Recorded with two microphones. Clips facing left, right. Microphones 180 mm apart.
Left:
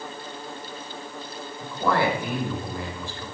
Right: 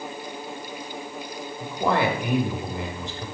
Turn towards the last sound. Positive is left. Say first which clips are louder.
# even
turn(degrees=-20)  # may be behind; listen again after turning